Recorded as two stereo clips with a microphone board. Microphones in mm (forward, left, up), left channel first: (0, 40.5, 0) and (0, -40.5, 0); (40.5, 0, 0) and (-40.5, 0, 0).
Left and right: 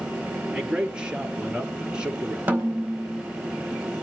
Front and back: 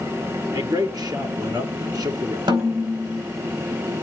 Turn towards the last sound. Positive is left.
turn(degrees=-160)